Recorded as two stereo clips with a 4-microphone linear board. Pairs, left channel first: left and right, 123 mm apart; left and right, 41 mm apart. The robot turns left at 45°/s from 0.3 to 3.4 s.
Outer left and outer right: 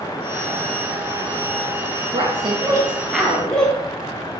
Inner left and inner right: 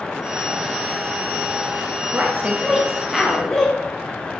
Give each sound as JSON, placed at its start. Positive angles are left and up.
{"t": 2.1, "sound": "a woman speaking", "azimuth_deg": -130, "distance_m": 0.8}